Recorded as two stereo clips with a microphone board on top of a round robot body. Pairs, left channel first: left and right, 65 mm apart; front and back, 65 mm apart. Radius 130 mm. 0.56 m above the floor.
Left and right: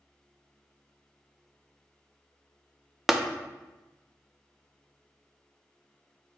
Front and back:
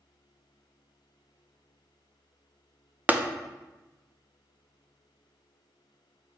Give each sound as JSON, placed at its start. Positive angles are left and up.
{"t": 3.1, "sound": "tapping", "azimuth_deg": -170, "distance_m": 0.5}